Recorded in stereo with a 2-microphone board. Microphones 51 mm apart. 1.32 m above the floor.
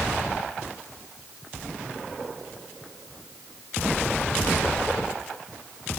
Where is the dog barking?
I don't hear a dog barking.